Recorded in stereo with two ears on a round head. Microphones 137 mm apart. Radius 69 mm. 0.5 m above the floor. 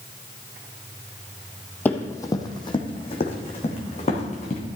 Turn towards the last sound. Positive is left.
turn(degrees=45)  # may be behind; listen again after turning